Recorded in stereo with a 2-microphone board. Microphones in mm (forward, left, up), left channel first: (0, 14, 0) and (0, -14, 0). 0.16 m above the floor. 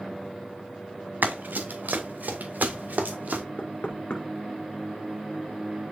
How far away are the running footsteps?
About 2 m.